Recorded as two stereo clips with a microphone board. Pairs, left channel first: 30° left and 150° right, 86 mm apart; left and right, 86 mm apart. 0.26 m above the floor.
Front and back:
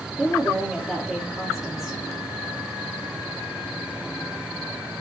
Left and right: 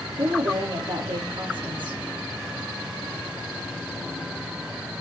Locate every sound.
0.2 s a woman speaking: 65° right, 9 m